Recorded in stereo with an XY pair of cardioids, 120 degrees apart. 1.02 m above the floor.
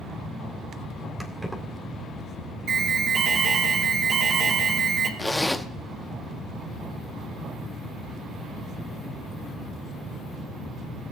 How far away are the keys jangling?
About 2 m.